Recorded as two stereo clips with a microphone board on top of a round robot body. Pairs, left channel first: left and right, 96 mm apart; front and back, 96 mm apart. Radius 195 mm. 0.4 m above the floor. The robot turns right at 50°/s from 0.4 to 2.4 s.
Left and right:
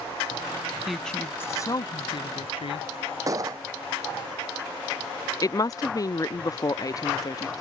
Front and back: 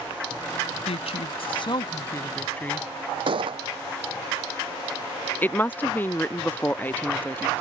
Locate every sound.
0.9 s a woman speaking: 5° right; by 3.2 s 75° left
3.3 s a gunshot: 145° right
5.4 s a woman speaking: 60° left